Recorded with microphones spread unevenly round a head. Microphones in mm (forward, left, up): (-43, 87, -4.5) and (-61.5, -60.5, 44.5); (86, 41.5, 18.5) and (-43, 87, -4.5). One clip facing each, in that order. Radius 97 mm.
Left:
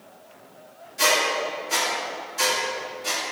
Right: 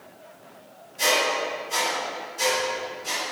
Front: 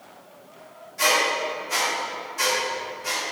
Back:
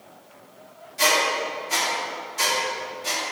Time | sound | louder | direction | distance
1.0 | a squeak | even, even | 95° left | 1.8 m